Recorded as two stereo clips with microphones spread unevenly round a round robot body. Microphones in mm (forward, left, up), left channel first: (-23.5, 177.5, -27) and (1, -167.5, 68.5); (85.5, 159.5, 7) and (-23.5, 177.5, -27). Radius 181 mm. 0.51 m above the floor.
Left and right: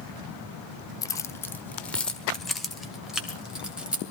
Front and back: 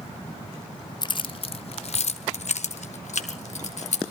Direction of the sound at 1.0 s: 45° left.